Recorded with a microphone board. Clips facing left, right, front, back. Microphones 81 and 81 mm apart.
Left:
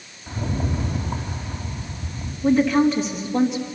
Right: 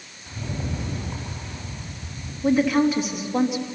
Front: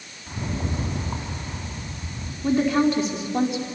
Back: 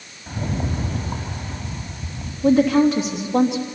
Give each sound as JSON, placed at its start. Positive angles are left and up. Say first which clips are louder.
{"t": 0.3, "sound": "a rattle", "louder": "left 5 dB, back 3 dB", "azimuth_deg": 150, "distance_m": 3.5}
{"t": 2.4, "sound": "a woman speaking", "louder": "left 2 dB, back 5 dB", "azimuth_deg": -175, "distance_m": 2.5}